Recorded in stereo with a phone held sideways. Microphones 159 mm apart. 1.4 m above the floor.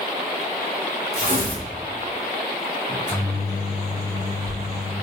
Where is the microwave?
75° left (ahead or behind), 1.5 m.